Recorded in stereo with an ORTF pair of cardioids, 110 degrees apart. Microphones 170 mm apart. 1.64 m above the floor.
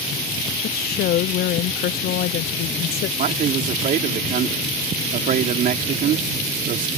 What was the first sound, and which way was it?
A woman speaking, 65° left.